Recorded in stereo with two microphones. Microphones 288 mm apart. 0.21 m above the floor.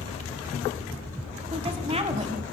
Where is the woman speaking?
20° right (ahead or behind), 1.5 m.